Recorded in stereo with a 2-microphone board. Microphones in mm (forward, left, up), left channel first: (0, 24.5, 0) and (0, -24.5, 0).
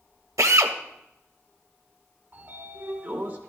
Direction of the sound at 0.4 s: 80° right.